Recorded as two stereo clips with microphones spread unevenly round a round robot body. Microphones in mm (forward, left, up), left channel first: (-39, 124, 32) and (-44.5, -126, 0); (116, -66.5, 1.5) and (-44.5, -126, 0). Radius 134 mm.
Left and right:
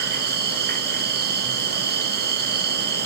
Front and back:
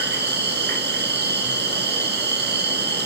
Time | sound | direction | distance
0.0 | an insect | 140° right | 2.0 m